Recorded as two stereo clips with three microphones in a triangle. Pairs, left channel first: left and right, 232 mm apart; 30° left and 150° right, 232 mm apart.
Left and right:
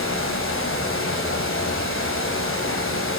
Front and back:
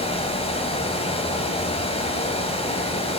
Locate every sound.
0.0 s running water: 90° left, 1.8 m